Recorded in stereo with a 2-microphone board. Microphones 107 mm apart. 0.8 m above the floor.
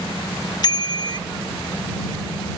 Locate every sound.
0.6 s a bicycle bell: 45° left (ahead or behind)